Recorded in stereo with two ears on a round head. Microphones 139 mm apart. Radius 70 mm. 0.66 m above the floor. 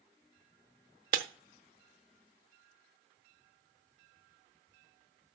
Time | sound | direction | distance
1.1 | breaking glass | 60° right (ahead or behind) | 1.0 m